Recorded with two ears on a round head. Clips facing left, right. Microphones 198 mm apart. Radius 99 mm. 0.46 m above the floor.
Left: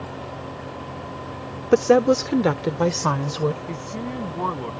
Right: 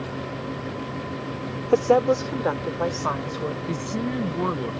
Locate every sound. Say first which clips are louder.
1.7 s a woman speaking: left 3 dB; 20° left (ahead or behind); by 3.6 s 50° left (ahead or behind)
3.7 s a woman speaking: right 3 dB; 20° right (ahead or behind)